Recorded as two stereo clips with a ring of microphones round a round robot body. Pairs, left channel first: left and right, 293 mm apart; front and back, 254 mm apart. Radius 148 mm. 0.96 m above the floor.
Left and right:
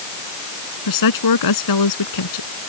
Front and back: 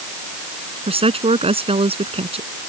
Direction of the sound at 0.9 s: 110° left.